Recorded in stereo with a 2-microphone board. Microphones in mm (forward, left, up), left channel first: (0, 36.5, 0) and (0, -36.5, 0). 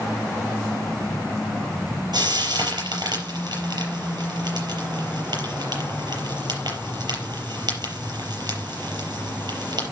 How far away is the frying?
About 4.5 m.